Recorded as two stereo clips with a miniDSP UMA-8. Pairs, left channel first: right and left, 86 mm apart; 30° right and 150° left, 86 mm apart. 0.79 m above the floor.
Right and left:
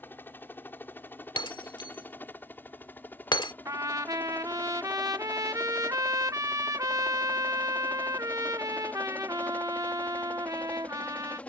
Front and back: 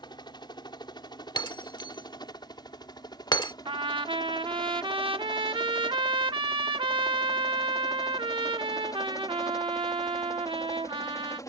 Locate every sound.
0.0 s a helicopter: 30° right; by 11.5 s 25° right
1.4 s breaking glass: 65° right
3.6 s a trumpet: 135° left